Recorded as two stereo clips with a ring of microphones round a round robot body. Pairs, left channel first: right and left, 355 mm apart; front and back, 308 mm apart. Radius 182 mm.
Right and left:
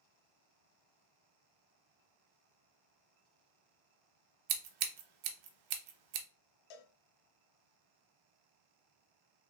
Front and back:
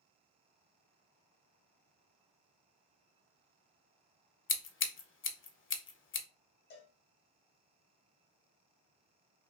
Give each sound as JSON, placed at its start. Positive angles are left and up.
{"t": 4.5, "sound": "scissors", "azimuth_deg": 55, "distance_m": 0.8}
{"t": 6.7, "sound": "a cowbell", "azimuth_deg": -65, "distance_m": 0.9}